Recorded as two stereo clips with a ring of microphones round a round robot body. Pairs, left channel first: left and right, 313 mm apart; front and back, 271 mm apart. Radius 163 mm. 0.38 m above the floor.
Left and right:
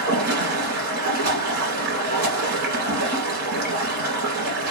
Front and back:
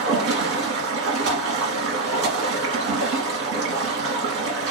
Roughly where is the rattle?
No rattle in this recording.